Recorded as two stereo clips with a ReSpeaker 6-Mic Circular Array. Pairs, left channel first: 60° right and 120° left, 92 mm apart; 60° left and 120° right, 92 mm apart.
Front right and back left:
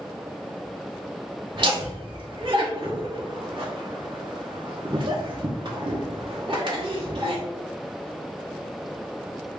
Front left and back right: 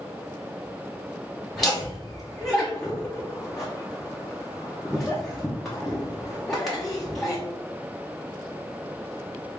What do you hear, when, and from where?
1.6 s laughter: 145° left, 0.9 m